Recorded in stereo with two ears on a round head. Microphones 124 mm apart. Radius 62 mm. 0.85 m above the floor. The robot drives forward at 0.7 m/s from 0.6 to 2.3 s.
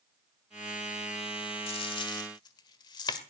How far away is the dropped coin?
About 1.1 m.